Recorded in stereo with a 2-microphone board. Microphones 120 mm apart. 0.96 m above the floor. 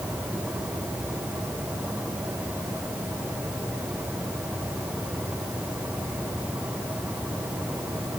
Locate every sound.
Only background noise.